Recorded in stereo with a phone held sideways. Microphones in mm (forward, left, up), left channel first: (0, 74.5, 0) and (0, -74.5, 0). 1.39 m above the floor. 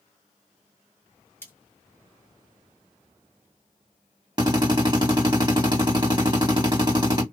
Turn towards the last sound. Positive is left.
turn(degrees=-30)  # may be behind; listen again after turning